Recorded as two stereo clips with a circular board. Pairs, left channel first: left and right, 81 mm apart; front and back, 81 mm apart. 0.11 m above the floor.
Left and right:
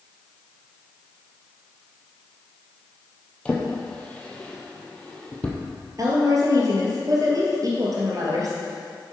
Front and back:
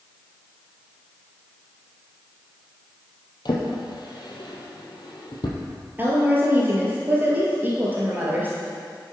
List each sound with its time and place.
3.5 s a drawer: 15° left, 1.3 m
6.0 s a woman speaking: 120° right, 2.5 m